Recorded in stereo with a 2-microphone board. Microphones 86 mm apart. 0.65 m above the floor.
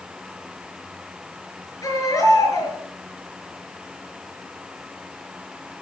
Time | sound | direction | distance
1.8 | a baby crying | 45° left (ahead or behind) | 5 m